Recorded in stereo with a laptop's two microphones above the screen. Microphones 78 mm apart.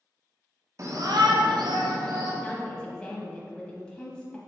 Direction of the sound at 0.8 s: 45° right (ahead or behind).